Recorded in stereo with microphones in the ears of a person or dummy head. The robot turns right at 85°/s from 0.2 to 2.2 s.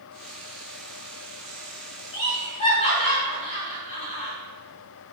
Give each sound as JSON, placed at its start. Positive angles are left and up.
{"t": 2.1, "sound": "laughter", "side_deg": 50, "distance_m": 1.7}